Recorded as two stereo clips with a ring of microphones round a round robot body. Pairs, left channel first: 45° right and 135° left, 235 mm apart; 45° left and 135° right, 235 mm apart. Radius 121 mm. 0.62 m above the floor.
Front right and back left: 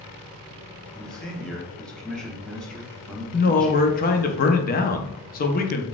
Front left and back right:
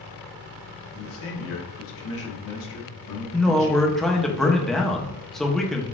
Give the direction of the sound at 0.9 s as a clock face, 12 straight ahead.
11 o'clock.